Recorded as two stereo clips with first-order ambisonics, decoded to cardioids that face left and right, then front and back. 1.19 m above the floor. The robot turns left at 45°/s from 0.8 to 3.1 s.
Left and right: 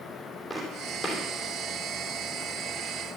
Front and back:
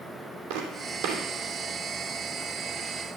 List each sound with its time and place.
0.5 s footsteps: 170° left, 3 m; by 1.2 s 150° left, 3 m